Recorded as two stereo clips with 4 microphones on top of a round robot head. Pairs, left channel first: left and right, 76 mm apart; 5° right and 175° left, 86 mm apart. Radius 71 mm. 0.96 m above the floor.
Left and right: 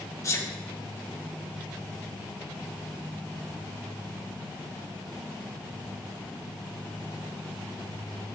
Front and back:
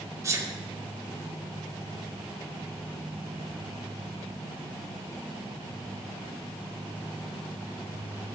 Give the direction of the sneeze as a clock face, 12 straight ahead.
8 o'clock.